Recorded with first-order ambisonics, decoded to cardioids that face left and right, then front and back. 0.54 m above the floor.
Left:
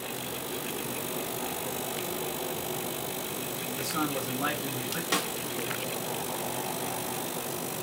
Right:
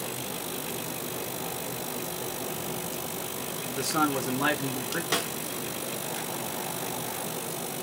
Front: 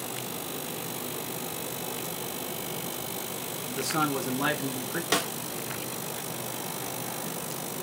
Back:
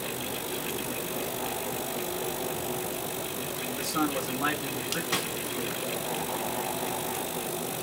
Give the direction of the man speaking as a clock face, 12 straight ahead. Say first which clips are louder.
Right 6 dB, front 2 dB; 2 o'clock.